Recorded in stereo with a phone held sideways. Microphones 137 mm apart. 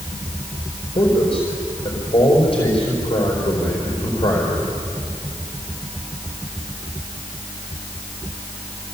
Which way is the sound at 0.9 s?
40° left (ahead or behind).